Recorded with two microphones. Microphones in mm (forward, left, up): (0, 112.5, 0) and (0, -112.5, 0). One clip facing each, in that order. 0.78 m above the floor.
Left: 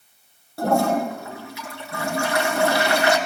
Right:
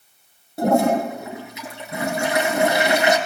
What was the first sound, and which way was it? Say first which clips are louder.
A toilet flushing: right 3 dB; 20° right (ahead or behind).